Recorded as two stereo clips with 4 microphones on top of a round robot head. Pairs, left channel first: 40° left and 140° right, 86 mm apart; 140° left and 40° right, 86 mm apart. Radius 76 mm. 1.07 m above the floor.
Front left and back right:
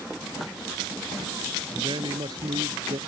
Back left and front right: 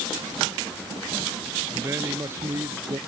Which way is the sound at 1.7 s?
100° right.